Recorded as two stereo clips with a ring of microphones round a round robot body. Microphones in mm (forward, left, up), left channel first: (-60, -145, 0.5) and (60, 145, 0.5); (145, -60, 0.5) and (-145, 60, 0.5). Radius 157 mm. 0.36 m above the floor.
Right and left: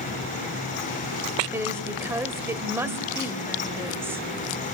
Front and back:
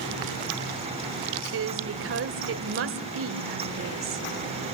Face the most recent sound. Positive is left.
turn(degrees=145)